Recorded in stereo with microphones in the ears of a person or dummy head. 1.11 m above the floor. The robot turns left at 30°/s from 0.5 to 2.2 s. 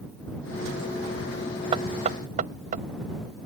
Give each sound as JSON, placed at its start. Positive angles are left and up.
{"t": 1.7, "sound": "knocking", "side_deg": -35}